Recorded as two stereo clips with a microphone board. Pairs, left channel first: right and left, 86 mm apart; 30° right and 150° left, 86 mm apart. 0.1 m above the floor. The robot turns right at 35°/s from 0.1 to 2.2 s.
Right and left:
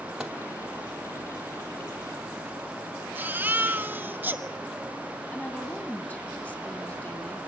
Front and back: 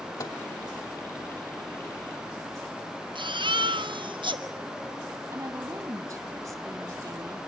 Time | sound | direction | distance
0.2 | a microwave | 5° left | 3 m
3.1 | a baby crying | 160° left | 1.3 m
5.3 | a woman speaking | 160° right | 3 m